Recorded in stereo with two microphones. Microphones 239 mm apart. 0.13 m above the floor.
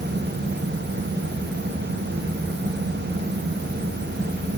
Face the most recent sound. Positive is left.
No sound to turn to.